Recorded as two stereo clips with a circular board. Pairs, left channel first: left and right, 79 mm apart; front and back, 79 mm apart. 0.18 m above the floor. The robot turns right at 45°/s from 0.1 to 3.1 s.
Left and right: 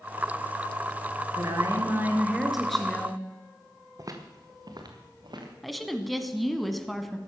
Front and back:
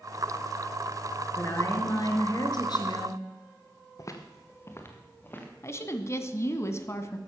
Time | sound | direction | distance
1.4 | a woman speaking | 60° right | 3 m
4.0 | footsteps | 45° right | 1.9 m
5.6 | a woman speaking | straight ahead | 1.3 m